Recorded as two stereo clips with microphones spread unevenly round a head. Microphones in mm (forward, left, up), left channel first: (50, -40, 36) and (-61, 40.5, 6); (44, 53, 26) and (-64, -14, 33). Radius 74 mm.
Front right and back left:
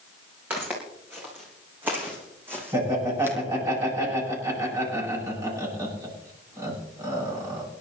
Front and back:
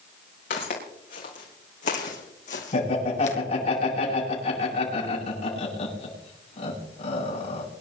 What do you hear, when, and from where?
0.5 s footsteps: 60° left, 7 m; by 3.4 s 65° left, 2.5 m
2.7 s laughter: 75° left, 9.5 m